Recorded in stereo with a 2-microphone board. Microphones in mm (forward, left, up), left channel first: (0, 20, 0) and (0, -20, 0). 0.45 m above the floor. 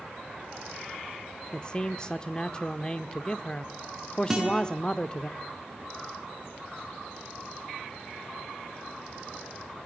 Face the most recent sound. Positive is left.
turn(degrees=-15)  # may be behind; listen again after turning